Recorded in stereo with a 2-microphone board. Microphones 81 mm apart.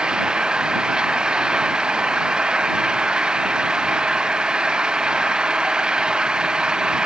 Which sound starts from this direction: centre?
An engine running, at 0.0 s.